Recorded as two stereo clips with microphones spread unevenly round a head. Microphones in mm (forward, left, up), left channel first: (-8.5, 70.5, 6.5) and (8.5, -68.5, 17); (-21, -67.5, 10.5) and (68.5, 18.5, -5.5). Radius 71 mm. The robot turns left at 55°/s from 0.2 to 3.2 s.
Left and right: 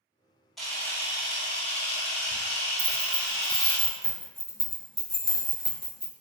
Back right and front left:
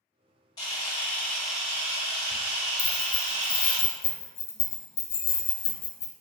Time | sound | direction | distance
0.6 | a camera shutter | 170° right | 1.2 m
2.8 | keys jangling | 150° right | 0.8 m